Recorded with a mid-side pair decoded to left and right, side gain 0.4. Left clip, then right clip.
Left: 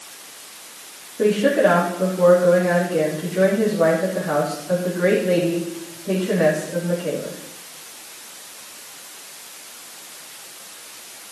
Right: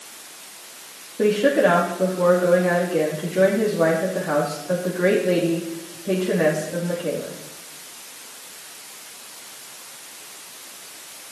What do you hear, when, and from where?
1.2 s a woman speaking: 25° right, 3 m